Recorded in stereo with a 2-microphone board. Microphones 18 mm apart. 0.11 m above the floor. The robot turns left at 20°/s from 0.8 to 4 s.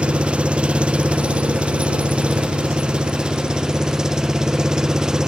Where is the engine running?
80° right; by 5.3 s 145° right.